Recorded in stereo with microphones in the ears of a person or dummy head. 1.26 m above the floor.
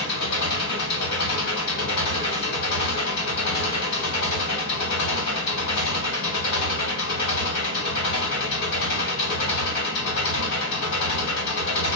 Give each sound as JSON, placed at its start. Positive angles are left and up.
{"t": 0.0, "sound": "an engine running", "side_deg": 60, "distance_m": 1.5}